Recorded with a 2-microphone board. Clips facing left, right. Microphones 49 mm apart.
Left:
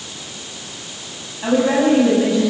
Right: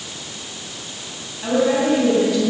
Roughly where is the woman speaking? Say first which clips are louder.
Left 2 dB; centre.